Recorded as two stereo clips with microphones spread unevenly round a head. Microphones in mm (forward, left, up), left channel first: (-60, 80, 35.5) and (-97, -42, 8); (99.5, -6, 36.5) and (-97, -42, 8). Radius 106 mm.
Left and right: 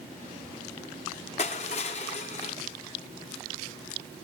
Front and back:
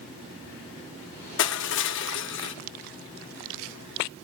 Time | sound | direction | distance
1.4 | crushing | 30° left | 1.2 m